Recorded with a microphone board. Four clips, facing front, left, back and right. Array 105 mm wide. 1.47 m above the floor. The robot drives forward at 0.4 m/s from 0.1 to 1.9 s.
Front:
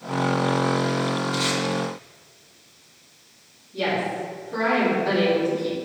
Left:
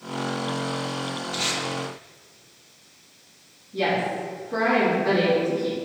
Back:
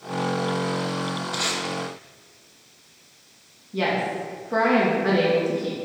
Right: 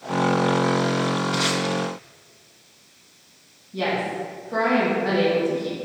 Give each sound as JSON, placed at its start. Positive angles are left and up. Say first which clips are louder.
{"t": 1.3, "sound": "tape being pulled", "louder": "right 6 dB, front 4 dB", "azimuth_deg": -105, "distance_m": 0.9}
{"t": 3.7, "sound": "a woman speaking", "louder": "left 1 dB, back 1 dB", "azimuth_deg": -170, "distance_m": 2.0}